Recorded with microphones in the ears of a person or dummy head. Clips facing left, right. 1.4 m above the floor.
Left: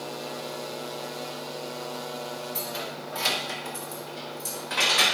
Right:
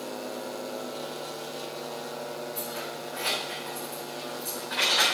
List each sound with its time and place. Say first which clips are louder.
2.5 s keys jangling: left 1 dB; 50° left (ahead or behind), 1.6 m; by 5.0 s 45° left (ahead or behind), 4 m